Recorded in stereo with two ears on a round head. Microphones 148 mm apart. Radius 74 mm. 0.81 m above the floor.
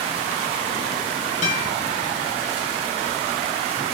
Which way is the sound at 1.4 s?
40° left (ahead or behind).